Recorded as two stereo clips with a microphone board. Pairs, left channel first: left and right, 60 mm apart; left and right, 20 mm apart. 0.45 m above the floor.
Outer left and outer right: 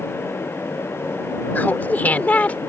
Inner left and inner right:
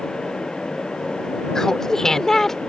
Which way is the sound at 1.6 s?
30° left (ahead or behind).